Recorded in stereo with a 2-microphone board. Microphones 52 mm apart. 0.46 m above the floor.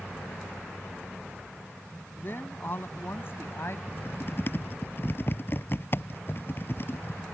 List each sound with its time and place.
2.2 s a woman speaking: 40° left (ahead or behind); by 3.8 s 50° left (ahead or behind)
3.9 s typing on a keyboard: 45° left (ahead or behind)